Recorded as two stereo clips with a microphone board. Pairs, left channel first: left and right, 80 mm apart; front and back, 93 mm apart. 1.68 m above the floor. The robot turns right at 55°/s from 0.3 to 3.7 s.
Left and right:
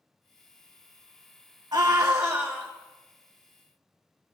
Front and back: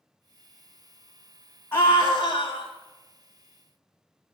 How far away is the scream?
About 2.5 m.